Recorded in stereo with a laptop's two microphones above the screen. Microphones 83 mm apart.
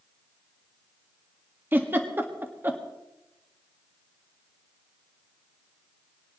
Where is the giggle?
25° right (ahead or behind), 1.7 m.